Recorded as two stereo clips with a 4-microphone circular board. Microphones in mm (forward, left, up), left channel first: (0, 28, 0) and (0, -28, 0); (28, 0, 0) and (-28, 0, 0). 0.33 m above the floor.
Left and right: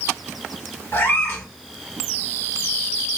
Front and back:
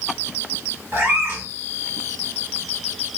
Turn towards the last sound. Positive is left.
turn(degrees=135)